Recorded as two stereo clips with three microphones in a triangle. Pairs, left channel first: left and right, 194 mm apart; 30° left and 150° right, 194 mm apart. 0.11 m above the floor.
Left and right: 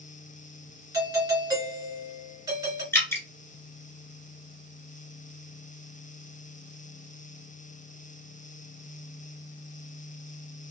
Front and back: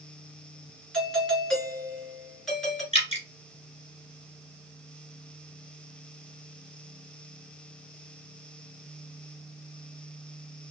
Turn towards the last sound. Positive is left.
turn(degrees=25)